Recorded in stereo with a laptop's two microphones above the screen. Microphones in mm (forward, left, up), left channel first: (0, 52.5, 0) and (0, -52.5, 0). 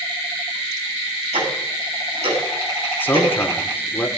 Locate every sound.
1.3 s ticking: 80° right, 9.5 m
3.0 s a man speaking: 20° left (ahead or behind), 2.5 m